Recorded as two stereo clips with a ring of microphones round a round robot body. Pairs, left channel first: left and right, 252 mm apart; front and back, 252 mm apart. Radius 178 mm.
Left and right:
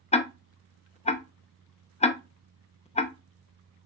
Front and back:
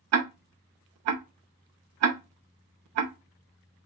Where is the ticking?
160° left, 0.7 m.